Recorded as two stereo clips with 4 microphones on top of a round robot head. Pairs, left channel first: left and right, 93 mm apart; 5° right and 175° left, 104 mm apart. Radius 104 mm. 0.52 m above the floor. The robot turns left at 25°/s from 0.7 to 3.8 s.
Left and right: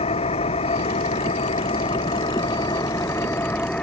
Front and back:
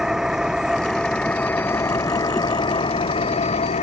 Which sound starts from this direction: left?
An engine running, at 0.0 s.